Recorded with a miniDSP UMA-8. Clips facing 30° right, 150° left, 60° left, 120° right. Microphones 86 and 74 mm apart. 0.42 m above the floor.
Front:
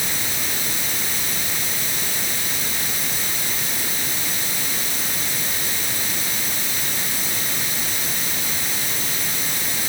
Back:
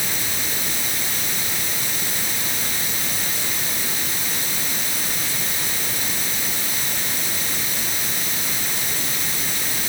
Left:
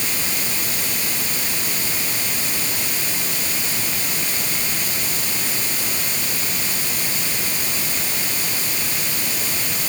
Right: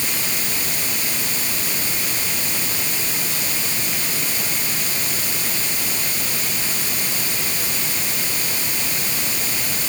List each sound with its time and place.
Only background noise.